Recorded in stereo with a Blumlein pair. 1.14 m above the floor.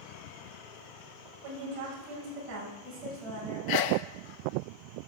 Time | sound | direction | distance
1.4 | a woman speaking | 40° right | 5 m
3.7 | a sneeze | 45° left | 0.6 m